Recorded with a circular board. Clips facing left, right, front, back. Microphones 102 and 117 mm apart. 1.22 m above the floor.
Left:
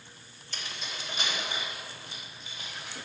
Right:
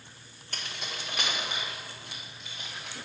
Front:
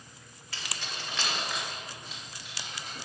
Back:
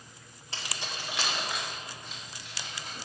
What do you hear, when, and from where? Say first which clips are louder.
0.5 s keys jangling: right 1 dB, back 1 dB; 120° right, 1.8 m; by 3.0 s 75° right, 4.5 m